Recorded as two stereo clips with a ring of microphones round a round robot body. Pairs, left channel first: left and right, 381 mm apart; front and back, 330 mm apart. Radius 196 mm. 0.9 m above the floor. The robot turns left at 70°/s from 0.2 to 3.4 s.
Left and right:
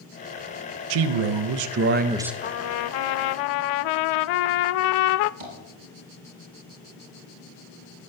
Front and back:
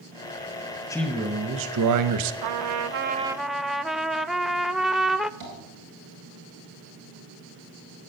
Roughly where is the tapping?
Behind right.